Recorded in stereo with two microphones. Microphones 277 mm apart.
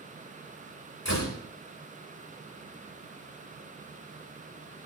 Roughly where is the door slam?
Left.